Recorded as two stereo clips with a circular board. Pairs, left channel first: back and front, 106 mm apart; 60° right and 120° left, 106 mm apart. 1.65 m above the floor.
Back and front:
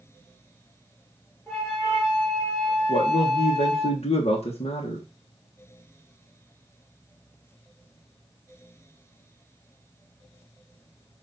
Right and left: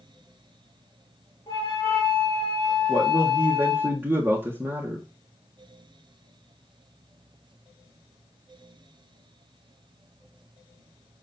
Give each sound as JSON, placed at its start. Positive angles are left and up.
{"t": 1.5, "sound": "a flute", "azimuth_deg": -90, "distance_m": 4.5}
{"t": 2.9, "sound": "a man speaking", "azimuth_deg": -170, "distance_m": 1.5}